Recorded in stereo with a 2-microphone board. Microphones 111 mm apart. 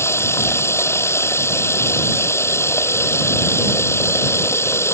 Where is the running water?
25° left (ahead or behind).